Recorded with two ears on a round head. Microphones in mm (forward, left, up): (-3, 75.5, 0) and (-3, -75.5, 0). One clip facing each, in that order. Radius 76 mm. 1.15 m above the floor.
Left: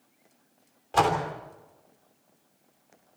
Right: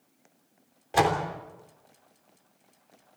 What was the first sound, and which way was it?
A door slam, 15° right (ahead or behind).